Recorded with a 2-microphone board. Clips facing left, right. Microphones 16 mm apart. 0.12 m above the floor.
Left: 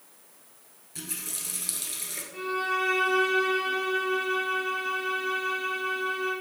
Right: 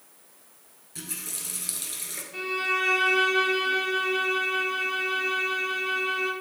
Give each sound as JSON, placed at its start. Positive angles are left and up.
{"t": 0.9, "sound": "a running tap", "side_deg": 0, "distance_m": 1.4}
{"t": 2.3, "sound": "a violin", "side_deg": -45, "distance_m": 2.5}